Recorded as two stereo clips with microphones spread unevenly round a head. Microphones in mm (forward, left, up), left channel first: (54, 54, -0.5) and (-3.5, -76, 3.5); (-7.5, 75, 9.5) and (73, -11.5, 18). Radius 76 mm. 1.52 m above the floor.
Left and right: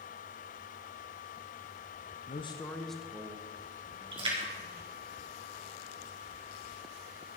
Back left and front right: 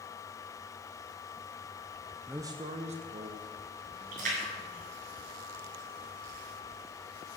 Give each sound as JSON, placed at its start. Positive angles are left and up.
{"t": 2.3, "sound": "a man speaking", "azimuth_deg": 30, "distance_m": 0.8}
{"t": 4.1, "sound": "a splash", "azimuth_deg": -60, "distance_m": 4.5}